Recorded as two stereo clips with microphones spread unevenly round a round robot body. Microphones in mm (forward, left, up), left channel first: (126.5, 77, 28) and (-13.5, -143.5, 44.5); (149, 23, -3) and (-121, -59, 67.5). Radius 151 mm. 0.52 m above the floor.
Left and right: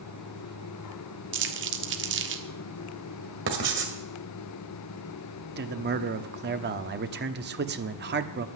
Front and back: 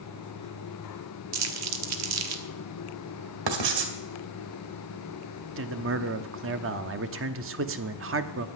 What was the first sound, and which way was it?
Crumpling, 150° right.